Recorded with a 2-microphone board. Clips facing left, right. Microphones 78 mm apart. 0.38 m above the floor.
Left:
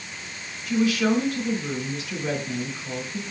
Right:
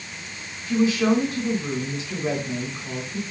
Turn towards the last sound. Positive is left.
turn(degrees=-25)  # may be behind; listen again after turning